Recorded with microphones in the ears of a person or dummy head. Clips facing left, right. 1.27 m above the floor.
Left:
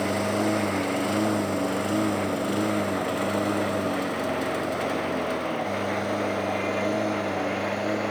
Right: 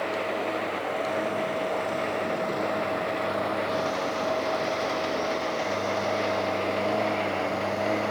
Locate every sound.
0.0 s a lawn mower: 60° left (ahead or behind); by 8.1 s 15° left (ahead or behind)